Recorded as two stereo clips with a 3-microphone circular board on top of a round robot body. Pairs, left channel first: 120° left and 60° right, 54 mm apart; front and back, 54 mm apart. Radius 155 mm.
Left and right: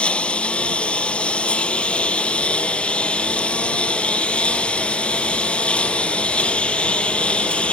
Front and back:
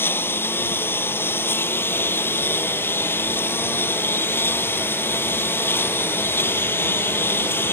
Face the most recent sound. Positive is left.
turn(degrees=50)